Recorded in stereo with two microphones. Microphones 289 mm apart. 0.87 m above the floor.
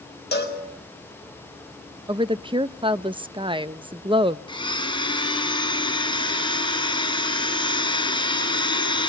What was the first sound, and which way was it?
A cowbell, 35° left (ahead or behind).